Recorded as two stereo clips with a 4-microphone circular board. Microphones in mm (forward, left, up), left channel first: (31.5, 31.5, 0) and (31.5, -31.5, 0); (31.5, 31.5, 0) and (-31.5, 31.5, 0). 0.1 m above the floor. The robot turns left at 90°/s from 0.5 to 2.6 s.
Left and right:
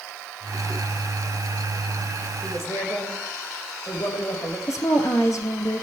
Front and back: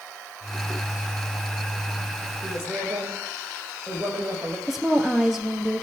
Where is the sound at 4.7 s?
95° left, 1.9 m.